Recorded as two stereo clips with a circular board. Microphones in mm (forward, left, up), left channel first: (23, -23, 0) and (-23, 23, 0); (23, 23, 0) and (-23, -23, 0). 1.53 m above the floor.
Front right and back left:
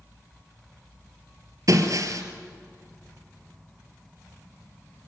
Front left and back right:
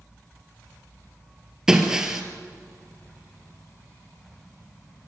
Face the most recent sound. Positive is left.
turn(degrees=145)